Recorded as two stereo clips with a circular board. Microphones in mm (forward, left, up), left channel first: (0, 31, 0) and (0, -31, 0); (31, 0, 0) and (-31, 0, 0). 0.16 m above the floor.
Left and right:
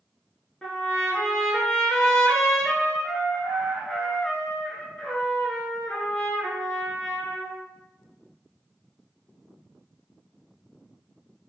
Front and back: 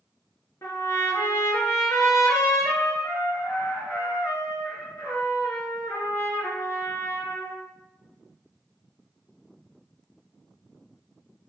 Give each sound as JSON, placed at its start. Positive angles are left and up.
{"t": 0.6, "sound": "a trumpet", "azimuth_deg": 15, "distance_m": 1.2}